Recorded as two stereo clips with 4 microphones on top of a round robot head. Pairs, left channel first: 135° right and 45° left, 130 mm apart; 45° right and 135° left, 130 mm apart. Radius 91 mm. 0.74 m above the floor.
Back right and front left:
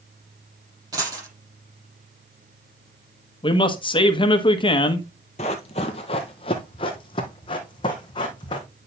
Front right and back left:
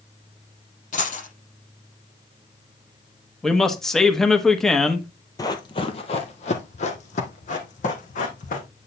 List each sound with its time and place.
0.9 s a dropped coin: 20° right, 6.5 m
3.4 s a man speaking: 135° right, 1.2 m
5.4 s running footsteps: 105° right, 0.9 m; by 8.7 s 75° right, 2.5 m